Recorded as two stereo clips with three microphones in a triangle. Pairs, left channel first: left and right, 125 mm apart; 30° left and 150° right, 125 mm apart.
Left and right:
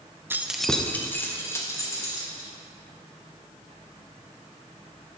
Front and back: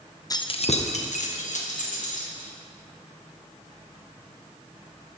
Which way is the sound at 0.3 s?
25° right.